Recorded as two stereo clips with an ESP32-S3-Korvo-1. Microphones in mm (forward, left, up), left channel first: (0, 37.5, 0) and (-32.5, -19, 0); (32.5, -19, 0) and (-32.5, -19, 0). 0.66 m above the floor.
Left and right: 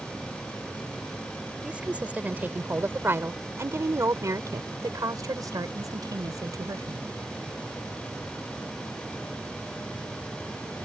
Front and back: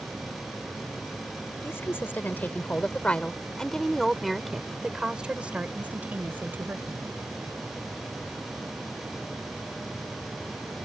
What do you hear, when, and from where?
1.6 s a woman speaking: 50° right; by 7.0 s 125° right